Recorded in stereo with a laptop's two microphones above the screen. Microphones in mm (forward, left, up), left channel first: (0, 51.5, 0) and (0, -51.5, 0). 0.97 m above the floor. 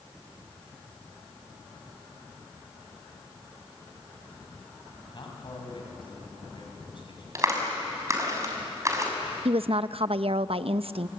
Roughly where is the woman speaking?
Right.